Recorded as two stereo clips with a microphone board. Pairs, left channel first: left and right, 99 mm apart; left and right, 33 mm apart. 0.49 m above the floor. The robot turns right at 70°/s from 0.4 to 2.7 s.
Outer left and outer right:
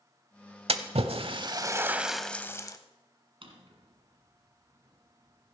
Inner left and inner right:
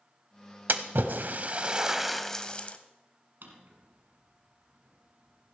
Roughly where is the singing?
No singing in this recording.